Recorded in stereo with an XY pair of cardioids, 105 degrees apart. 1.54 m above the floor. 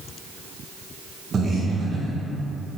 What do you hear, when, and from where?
1.3 s breathing: 35° right, 1.0 m